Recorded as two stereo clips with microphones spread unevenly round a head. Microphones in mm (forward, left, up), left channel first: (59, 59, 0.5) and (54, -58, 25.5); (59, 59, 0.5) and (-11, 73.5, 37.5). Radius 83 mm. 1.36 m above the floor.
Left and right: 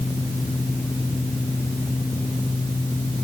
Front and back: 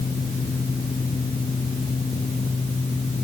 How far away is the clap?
I don't hear a clap.